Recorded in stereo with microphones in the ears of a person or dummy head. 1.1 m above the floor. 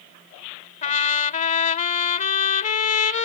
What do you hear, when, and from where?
0.8 s a trumpet: 40° left (ahead or behind)